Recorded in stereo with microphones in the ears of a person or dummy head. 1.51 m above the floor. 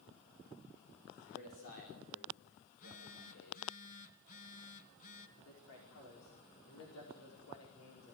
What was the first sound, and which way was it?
A man speaking, 50° left (ahead or behind).